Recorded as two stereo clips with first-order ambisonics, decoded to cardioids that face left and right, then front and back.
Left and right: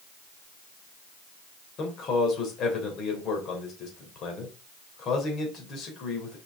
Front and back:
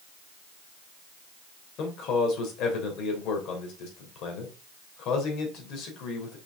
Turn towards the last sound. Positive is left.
turn(degrees=40)